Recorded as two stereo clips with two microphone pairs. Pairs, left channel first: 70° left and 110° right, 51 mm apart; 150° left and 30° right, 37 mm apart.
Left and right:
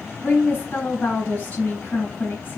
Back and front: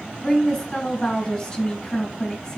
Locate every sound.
0.2 s a woman speaking: 95° left, 1.6 m